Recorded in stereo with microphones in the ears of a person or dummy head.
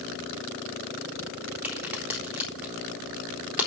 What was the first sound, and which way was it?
A crack, 5° right (ahead or behind).